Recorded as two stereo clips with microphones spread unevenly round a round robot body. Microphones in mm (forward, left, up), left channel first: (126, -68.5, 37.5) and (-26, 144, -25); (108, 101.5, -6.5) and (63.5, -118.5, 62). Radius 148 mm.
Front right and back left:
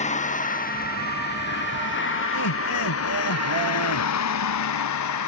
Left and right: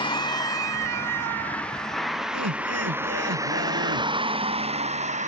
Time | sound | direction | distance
0.0 | a vehicle | 10° left | ?
2.3 | laughter | 85° right | ?